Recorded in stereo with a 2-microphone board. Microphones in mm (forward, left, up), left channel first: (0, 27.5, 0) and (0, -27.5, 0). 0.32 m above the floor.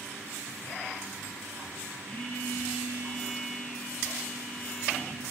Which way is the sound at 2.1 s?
30° left (ahead or behind).